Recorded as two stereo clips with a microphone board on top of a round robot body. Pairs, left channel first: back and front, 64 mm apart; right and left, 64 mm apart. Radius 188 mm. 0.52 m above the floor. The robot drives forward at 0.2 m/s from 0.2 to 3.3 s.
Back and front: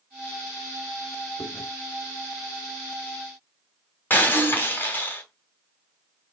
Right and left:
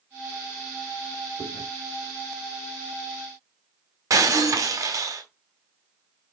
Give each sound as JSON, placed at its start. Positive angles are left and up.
{"t": 1.4, "sound": "chewing", "azimuth_deg": 105, "distance_m": 5.0}
{"t": 4.1, "sound": "breaking glass", "azimuth_deg": 120, "distance_m": 2.5}